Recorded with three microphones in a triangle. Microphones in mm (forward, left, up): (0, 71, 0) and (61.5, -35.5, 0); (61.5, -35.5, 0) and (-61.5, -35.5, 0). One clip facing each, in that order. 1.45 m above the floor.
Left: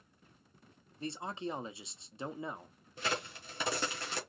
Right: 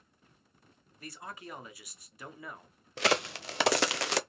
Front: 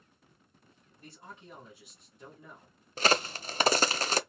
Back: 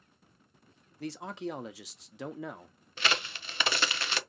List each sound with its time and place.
1.0 s a man speaking: 175° right, 0.7 m
3.0 s a crack: 55° right, 0.5 m